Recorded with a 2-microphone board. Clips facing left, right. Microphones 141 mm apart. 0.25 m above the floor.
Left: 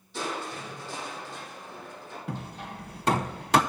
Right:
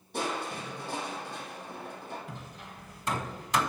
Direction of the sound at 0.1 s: 55° right (ahead or behind).